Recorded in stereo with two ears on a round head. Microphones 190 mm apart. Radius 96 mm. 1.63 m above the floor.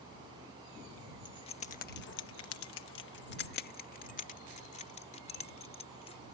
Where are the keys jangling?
20° left (ahead or behind); by 6.2 s 25° left (ahead or behind).